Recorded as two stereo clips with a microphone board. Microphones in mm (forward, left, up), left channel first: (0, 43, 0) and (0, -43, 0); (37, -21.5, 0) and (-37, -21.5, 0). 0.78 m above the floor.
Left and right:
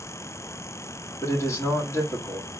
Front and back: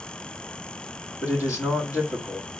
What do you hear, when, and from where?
1.2 s a man speaking: 35° left, 1.8 m